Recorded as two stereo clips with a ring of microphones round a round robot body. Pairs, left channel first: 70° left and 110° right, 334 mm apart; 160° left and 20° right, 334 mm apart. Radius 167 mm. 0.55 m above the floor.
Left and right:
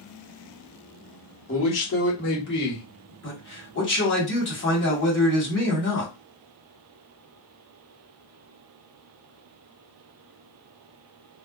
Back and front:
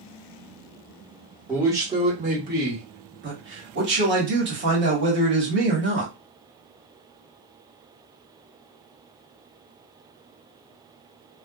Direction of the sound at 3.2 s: 25° left.